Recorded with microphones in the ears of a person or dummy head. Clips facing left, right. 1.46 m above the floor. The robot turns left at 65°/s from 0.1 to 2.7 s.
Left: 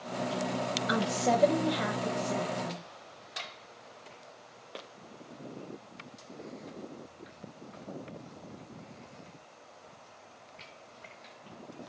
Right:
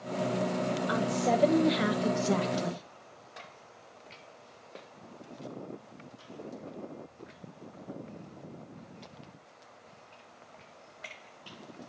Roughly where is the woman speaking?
Ahead left.